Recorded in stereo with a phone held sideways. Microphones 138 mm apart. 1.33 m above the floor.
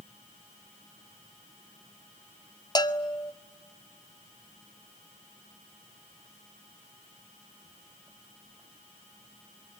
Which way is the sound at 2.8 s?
30° left (ahead or behind).